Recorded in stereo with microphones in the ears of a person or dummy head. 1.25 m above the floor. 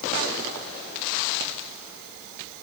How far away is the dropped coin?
No dropped coin in this recording.